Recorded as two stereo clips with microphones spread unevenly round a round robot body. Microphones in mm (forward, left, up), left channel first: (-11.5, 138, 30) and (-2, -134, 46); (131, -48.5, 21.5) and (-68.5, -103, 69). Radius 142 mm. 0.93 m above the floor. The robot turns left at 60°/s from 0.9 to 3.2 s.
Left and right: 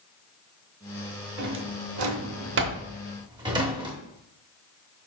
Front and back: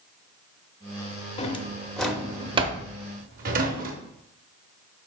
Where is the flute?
I don't hear a flute.